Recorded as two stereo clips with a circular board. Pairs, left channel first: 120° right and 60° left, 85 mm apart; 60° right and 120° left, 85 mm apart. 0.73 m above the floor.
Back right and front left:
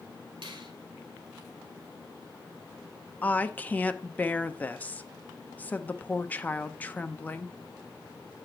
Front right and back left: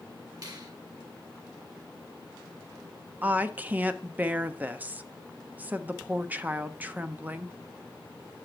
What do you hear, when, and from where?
0.4 s a finger snap: 80° left, 2.0 m
3.2 s a woman speaking: straight behind, 0.6 m